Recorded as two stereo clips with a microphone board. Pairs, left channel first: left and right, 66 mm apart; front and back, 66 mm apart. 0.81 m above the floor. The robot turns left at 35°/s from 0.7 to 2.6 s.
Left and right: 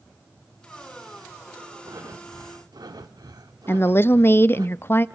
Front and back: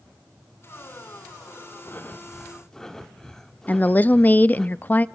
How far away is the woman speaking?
About 0.5 m.